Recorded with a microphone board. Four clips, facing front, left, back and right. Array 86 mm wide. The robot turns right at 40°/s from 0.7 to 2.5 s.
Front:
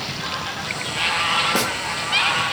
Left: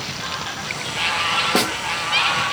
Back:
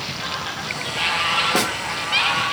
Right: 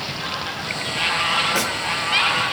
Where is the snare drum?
105° left, 0.8 m; by 1.7 s 110° left, 0.8 m.